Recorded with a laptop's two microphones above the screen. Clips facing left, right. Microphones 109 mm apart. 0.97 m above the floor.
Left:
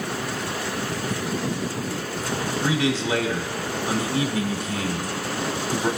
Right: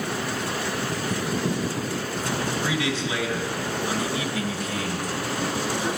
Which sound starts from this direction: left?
A man speaking, at 2.6 s.